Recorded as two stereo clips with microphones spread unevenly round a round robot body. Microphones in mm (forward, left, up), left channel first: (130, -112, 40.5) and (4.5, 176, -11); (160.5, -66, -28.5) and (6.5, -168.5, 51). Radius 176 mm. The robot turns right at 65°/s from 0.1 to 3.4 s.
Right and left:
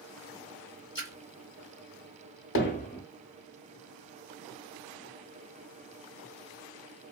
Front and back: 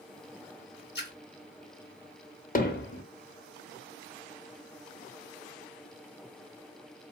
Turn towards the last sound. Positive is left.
turn(degrees=35)